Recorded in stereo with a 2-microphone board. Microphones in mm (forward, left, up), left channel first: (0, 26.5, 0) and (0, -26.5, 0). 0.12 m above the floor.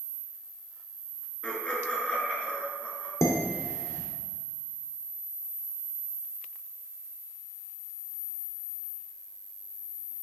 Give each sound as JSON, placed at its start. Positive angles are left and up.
{"t": 1.4, "sound": "laughter", "side_deg": 20, "distance_m": 1.7}
{"t": 3.2, "sound": "dishes clattering", "side_deg": 60, "distance_m": 1.5}